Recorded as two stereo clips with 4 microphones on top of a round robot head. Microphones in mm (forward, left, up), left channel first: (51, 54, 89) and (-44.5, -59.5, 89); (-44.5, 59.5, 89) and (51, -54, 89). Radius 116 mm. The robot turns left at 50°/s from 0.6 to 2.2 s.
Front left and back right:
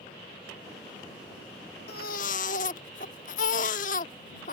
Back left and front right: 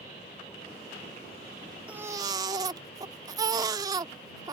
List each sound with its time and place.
1.9 s a baby crying: 30° left; by 4.5 s 15° left